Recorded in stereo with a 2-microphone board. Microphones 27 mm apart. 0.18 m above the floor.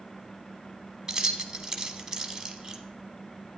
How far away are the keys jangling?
About 0.9 m.